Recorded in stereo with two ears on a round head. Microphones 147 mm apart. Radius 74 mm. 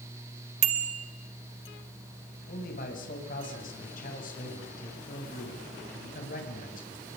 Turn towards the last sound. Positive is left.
turn(degrees=55)  # may be behind; listen again after turning